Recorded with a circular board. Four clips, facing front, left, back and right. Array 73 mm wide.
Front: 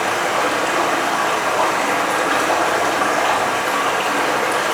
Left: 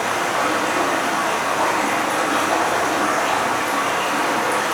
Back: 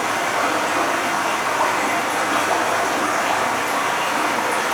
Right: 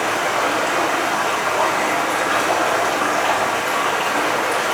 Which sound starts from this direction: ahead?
Running water, at 0.0 s.